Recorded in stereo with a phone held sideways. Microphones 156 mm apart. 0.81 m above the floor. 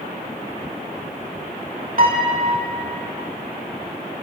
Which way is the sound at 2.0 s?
55° right (ahead or behind).